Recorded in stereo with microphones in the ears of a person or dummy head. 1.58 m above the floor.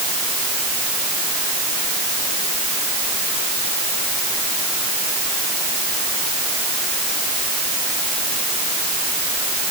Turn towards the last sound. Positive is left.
No sound to turn to.